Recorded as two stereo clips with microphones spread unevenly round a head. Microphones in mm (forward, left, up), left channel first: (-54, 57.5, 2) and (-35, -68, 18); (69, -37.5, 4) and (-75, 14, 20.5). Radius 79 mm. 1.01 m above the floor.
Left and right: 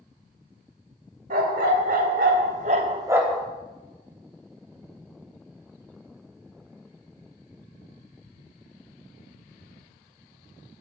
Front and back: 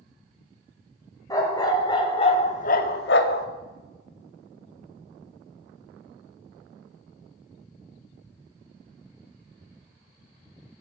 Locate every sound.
1.3 s a dog barking: 90° right, 1.9 m; by 3.5 s 15° left, 0.8 m